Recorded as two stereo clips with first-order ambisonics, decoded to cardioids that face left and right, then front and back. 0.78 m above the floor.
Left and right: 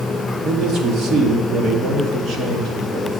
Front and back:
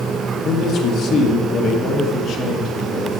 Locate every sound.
0.4 s a man speaking: 45° right, 1.7 m